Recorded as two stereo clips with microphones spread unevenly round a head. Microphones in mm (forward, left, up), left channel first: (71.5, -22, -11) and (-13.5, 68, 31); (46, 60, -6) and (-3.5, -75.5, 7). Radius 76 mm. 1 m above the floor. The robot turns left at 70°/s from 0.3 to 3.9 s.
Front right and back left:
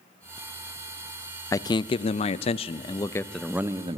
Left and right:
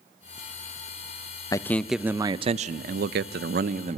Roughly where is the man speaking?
Ahead.